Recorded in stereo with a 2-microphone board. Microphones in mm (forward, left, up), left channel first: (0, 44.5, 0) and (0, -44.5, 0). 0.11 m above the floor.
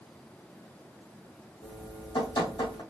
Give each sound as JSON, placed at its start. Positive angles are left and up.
{"t": 1.6, "sound": "dripping", "side_deg": 65, "distance_m": 3.0}